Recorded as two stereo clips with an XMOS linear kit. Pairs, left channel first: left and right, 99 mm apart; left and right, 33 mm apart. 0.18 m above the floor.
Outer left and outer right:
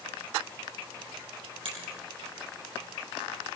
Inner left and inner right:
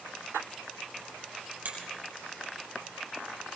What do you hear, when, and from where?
1.6 s a finger snap: 65° right (ahead or behind), 5 m